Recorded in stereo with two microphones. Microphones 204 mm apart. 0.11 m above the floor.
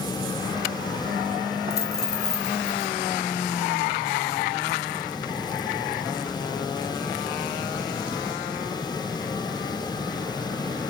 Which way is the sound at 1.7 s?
50° left (ahead or behind).